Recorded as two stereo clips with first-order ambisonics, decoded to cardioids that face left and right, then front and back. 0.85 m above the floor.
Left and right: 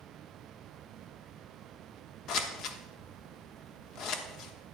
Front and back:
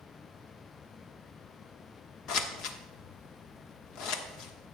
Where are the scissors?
40° left, 1.0 m.